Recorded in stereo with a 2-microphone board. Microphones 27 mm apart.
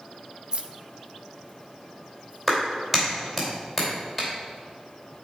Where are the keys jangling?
35° right (ahead or behind), 0.5 m; by 2.4 s 70° right (ahead or behind), 3 m.